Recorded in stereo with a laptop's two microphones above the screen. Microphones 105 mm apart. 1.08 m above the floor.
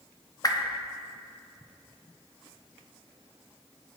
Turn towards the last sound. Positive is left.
turn(degrees=35)  # may be behind; listen again after turning